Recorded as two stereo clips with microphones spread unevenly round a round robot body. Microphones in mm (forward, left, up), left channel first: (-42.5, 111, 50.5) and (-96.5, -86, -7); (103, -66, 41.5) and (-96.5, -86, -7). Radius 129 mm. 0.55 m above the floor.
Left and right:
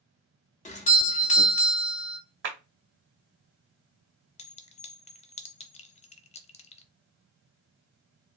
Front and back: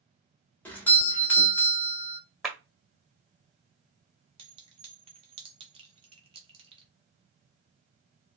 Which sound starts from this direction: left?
A doorbell, at 0.7 s.